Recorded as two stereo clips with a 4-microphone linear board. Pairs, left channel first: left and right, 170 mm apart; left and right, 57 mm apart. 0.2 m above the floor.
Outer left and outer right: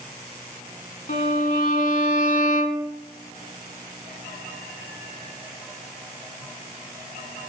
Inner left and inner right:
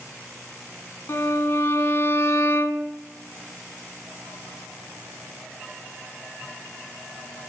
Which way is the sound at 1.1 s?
50° left (ahead or behind).